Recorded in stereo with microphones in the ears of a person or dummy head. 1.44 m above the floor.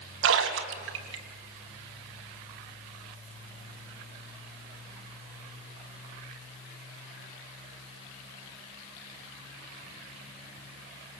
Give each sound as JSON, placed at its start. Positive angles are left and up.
{"t": 0.2, "sound": "a splash", "side_deg": -75, "distance_m": 2.5}